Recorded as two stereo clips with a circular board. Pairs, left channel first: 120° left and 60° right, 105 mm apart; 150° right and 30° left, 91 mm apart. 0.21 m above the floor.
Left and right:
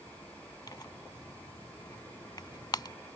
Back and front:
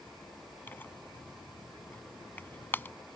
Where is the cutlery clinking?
I don't hear cutlery clinking.